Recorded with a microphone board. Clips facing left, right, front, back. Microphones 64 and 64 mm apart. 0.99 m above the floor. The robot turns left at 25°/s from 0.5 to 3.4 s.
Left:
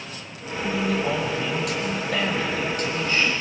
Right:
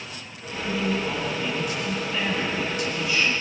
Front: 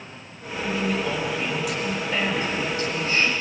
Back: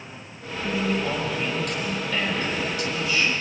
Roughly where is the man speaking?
Left.